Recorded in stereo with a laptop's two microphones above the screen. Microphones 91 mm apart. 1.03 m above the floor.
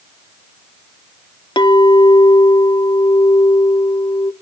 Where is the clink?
65° left (ahead or behind), 1.3 m.